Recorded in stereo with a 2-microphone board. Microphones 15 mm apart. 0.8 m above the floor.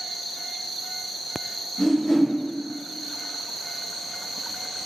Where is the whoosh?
35° left (ahead or behind), 1.3 m.